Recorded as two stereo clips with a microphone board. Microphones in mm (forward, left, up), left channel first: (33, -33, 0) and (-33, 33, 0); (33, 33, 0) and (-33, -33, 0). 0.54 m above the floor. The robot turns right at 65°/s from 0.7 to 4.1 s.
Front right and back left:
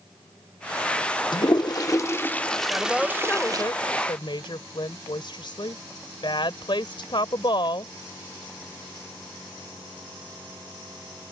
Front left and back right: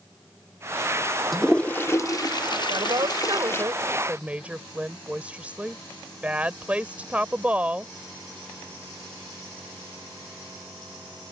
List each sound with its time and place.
1.3 s a toilet flushing: 45° right; by 3.6 s 105° left
2.7 s a woman speaking: 155° right; by 7.9 s 60° right